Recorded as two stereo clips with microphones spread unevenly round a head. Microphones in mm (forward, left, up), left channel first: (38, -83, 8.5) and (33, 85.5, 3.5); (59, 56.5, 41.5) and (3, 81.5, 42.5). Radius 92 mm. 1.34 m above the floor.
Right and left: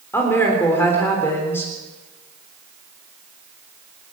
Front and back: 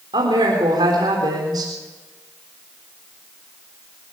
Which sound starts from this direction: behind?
A woman speaking, at 0.1 s.